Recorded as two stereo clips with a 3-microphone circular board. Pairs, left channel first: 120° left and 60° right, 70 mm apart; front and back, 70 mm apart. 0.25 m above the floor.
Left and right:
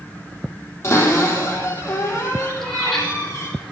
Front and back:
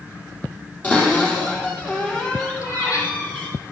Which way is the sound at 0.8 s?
70° left.